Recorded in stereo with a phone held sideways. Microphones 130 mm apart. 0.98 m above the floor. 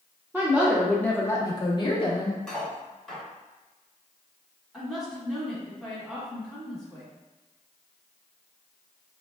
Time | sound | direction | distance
0.3 | a woman speaking | 15° right (ahead or behind) | 0.6 m
2.5 | cutlery clinking | 5° left (ahead or behind) | 1.5 m
4.7 | a woman speaking | 5° right (ahead or behind) | 1.7 m